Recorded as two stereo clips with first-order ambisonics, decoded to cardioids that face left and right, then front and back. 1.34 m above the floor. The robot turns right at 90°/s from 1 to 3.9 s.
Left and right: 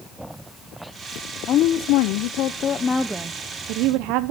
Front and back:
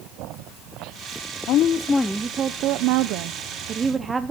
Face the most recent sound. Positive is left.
turn(degrees=-105)